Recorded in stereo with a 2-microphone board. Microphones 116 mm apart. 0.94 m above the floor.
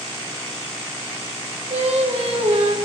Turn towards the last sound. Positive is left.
turn(degrees=-75)  # may be behind; listen again after turning